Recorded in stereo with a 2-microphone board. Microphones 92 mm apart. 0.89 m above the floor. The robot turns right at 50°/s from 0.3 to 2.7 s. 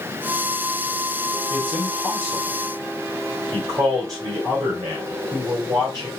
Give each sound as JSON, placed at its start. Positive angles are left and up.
{"t": 1.5, "sound": "a man speaking", "side_deg": 15, "distance_m": 4.5}